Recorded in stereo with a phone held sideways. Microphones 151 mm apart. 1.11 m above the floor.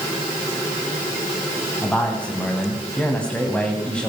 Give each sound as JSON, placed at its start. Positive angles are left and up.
{"t": 1.8, "sound": "a man speaking", "side_deg": 10, "distance_m": 8.5}